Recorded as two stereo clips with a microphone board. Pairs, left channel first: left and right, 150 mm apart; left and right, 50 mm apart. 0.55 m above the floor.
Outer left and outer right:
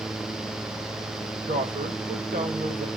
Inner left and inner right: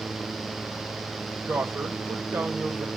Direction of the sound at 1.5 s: 65° right (ahead or behind).